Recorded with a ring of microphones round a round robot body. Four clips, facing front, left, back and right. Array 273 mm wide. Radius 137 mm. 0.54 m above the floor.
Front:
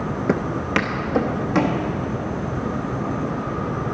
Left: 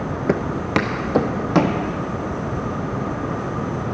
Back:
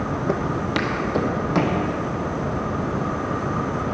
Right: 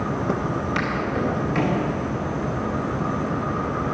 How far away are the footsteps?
About 0.6 m.